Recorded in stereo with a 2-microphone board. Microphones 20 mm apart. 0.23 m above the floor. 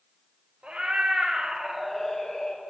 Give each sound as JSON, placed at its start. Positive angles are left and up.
{"t": 0.6, "sound": "a cat meowing", "side_deg": -85, "distance_m": 1.5}